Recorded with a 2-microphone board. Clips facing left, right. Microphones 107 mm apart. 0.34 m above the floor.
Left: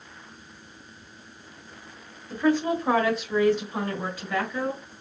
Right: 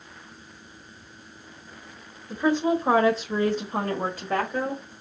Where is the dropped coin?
No dropped coin in this recording.